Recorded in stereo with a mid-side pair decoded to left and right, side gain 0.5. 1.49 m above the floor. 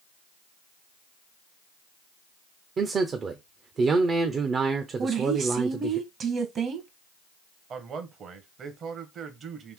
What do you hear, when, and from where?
2.8 s a man speaking: 45° right, 0.6 m
5.0 s a woman speaking: 55° right, 1.1 m
7.7 s a man speaking: 55° right, 1.0 m